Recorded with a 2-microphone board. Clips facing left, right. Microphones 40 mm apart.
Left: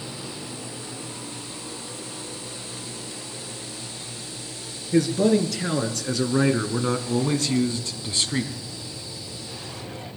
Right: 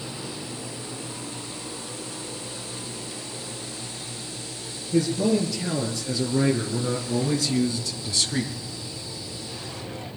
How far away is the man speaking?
About 5 m.